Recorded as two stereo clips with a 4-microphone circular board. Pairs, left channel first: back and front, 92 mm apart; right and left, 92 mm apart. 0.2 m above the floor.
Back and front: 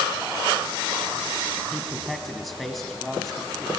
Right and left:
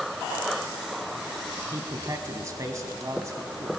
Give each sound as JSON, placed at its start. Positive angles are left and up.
{"t": 1.7, "sound": "a man speaking", "azimuth_deg": 95, "distance_m": 1.3}